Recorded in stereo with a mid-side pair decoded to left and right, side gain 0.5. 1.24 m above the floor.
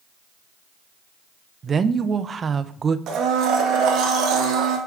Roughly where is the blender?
Right.